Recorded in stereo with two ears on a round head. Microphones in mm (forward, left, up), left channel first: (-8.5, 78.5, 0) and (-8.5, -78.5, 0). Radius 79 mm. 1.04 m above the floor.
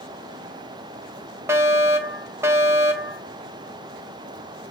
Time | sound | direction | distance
1.5 | a fire alarm | 15° right (ahead or behind) | 1.5 m